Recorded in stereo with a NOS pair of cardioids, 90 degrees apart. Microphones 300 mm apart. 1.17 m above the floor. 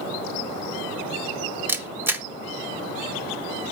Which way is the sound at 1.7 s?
5° right.